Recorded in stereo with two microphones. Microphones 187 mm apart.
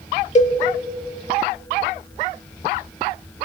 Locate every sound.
0.3 s a cowbell: 40° left (ahead or behind), 0.7 m